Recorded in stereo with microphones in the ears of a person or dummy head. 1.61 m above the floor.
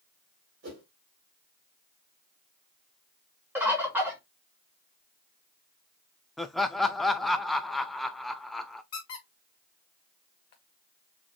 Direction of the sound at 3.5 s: 10° right (ahead or behind).